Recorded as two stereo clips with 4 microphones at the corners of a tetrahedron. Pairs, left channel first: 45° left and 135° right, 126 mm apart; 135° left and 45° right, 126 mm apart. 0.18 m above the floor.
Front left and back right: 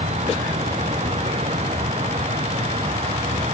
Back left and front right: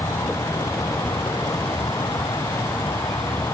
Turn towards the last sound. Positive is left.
turn(degrees=-160)